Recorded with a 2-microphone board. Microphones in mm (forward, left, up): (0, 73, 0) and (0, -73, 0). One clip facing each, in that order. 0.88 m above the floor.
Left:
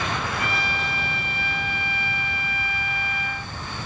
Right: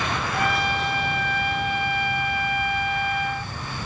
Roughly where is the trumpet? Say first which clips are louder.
Right 4 dB; right.